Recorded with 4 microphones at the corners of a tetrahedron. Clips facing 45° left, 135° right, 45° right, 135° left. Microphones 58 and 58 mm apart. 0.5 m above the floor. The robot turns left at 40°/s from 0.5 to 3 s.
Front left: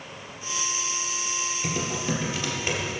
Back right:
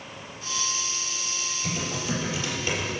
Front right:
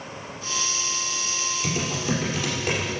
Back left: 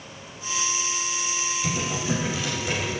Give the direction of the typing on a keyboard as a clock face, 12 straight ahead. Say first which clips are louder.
Front left 1 dB, front right 1 dB; 11 o'clock.